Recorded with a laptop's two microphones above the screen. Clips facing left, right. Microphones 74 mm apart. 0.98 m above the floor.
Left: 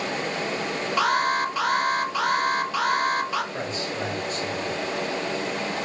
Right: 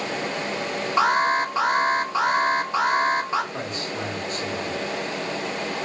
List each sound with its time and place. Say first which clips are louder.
1.0 s an alarm: right 3 dB; 25° right (ahead or behind), 0.9 m
3.5 s a man speaking: left 1 dB; 50° right (ahead or behind), 2.5 m